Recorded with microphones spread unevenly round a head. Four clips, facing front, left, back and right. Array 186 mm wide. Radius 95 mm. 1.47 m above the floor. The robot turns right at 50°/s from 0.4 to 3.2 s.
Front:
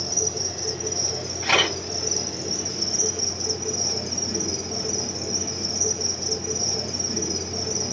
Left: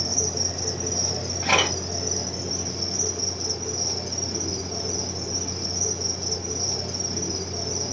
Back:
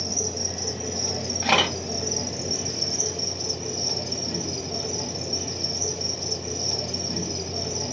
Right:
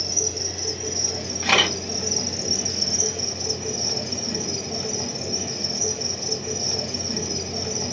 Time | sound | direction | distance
0.0 | an insect | 125° left | 0.8 m
1.4 | a camera shutter | 175° left | 2.5 m